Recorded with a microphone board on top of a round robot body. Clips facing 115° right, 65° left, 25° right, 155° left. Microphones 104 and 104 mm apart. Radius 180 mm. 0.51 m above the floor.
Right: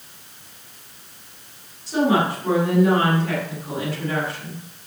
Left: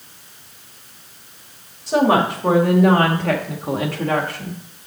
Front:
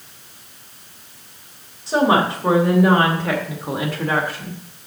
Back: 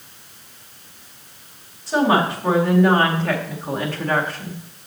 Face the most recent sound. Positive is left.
turn(degrees=65)